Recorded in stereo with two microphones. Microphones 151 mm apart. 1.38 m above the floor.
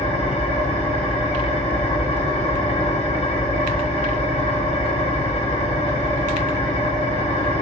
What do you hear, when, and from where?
0.0 s an engine running: 45° left (ahead or behind), 2 m